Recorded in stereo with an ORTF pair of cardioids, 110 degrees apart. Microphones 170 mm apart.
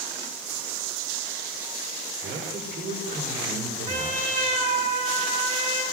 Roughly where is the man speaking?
Ahead right.